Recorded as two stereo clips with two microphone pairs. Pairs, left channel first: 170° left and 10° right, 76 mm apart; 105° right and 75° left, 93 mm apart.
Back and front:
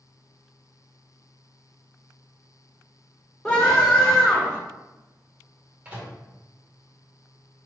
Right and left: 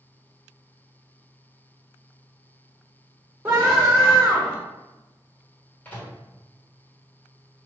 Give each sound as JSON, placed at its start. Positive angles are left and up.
{"t": 3.5, "sound": "a scream", "azimuth_deg": 95, "distance_m": 1.3}
{"t": 5.8, "sound": "a microwave", "azimuth_deg": -55, "distance_m": 1.3}